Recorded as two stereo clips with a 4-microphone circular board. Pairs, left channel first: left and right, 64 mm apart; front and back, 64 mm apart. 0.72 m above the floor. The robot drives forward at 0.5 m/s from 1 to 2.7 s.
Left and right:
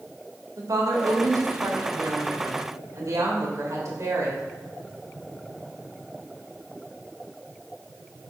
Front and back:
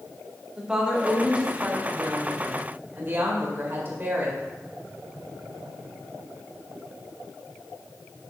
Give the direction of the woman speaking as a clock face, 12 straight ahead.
3 o'clock.